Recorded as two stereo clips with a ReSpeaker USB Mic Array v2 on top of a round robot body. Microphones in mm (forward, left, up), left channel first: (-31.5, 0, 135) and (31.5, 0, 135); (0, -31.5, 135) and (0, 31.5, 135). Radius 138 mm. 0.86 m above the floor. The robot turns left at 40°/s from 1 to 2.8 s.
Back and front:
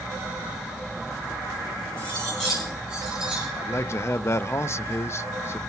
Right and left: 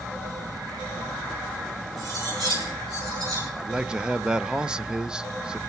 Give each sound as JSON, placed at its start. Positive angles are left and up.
{"t": 2.0, "sound": "cutlery clinking", "azimuth_deg": 110, "distance_m": 8.5}
{"t": 3.6, "sound": "a man speaking", "azimuth_deg": 165, "distance_m": 0.7}